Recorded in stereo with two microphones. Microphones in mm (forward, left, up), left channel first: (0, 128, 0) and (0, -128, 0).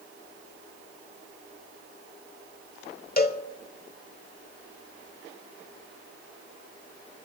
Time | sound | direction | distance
3.2 | a cowbell | 35° left (ahead or behind) | 1.0 m